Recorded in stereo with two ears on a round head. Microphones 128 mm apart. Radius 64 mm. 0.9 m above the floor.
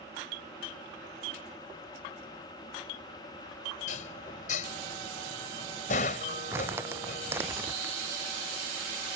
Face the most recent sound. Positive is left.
turn(degrees=-20)  # may be behind; listen again after turning